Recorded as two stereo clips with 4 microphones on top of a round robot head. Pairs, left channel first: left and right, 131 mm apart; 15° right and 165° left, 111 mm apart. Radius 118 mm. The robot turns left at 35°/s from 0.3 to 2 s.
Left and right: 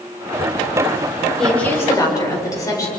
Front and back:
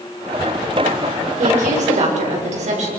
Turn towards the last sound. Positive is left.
turn(degrees=155)